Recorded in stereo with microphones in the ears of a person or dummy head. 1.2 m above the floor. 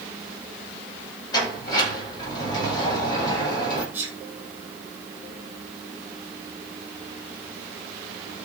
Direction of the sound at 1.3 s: 20° left (ahead or behind).